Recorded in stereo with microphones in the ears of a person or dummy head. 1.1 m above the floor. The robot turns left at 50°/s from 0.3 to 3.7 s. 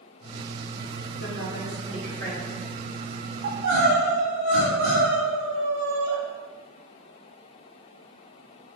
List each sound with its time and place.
1.2 s a woman speaking: 60° left, 2.0 m; by 2.6 s 10° right, 2.0 m
3.4 s crying: 65° right (ahead or behind), 2.5 m; by 6.1 s 70° right (ahead or behind), 2.5 m